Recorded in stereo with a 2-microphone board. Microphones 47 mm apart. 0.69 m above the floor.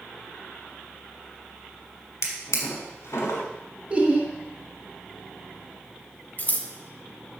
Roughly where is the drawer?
Left.